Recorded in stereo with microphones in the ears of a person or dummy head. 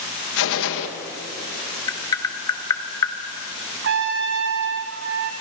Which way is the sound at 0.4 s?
70° left (ahead or behind).